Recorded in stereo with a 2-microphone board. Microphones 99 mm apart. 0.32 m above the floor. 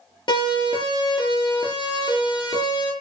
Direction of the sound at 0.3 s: 55° left (ahead or behind).